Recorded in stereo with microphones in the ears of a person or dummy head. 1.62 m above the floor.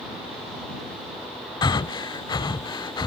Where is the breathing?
20° left (ahead or behind).